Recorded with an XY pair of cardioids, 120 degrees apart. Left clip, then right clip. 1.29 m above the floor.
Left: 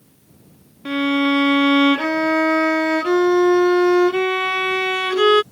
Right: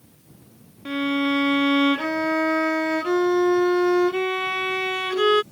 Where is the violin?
30° left.